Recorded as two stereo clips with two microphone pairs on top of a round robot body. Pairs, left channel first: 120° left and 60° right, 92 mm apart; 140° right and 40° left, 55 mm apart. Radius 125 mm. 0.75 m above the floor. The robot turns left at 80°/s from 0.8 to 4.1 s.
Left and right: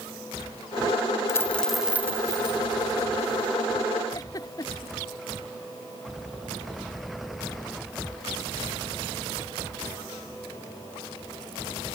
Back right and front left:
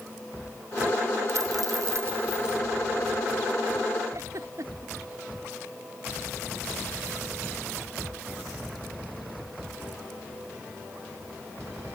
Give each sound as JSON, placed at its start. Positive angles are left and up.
{"t": 1.3, "sound": "a dropped coin", "azimuth_deg": 70}
{"t": 4.1, "sound": "a giggle", "azimuth_deg": 70}